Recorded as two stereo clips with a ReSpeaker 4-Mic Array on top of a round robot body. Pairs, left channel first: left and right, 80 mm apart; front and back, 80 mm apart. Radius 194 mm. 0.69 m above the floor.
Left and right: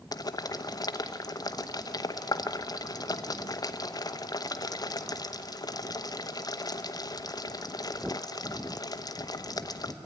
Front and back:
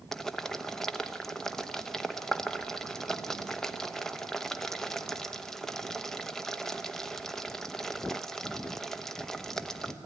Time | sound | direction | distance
0.1 | boiling | 85° left | 1.0 m